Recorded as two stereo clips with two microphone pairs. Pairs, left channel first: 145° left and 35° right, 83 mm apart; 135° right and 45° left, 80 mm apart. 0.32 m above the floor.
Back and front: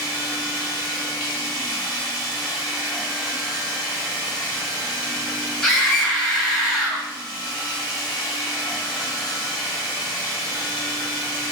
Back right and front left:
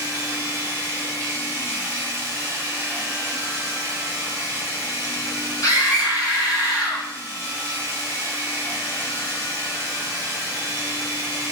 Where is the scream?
125° right, 1.9 m.